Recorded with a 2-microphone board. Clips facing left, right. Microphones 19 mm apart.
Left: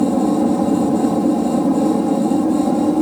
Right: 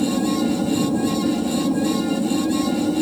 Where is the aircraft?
60° left (ahead or behind); by 3.0 s 55° left (ahead or behind).